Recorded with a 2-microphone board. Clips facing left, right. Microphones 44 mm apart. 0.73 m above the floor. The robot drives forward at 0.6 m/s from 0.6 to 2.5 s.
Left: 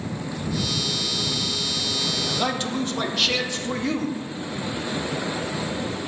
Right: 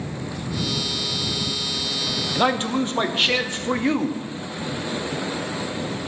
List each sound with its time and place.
2.4 s a man speaking: 30° right (ahead or behind), 0.8 m